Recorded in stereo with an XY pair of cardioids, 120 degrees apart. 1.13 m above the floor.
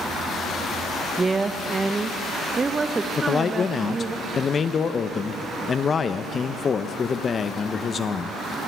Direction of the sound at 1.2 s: 25° right.